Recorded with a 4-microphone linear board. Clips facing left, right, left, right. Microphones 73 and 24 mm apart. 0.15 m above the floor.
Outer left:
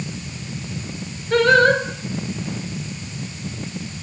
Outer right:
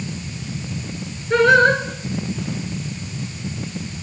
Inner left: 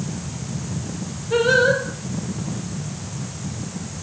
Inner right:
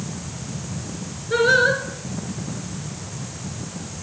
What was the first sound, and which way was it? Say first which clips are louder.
Singing: outer right 1 dB, even; 20° right (ahead or behind).